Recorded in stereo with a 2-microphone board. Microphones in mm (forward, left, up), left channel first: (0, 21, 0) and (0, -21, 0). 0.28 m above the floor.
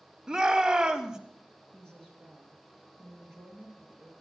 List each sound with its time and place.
0.3 s a shout: 15° right (ahead or behind), 1.4 m
1.7 s a woman speaking: 10° left (ahead or behind), 3.5 m